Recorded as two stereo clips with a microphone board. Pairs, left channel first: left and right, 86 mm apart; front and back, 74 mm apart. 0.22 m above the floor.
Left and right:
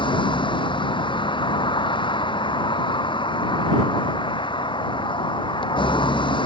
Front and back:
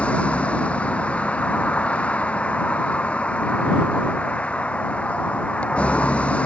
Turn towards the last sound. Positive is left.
turn(degrees=70)